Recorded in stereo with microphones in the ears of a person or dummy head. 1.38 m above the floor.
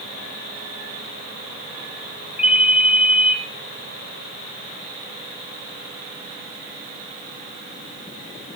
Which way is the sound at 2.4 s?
10° right (ahead or behind).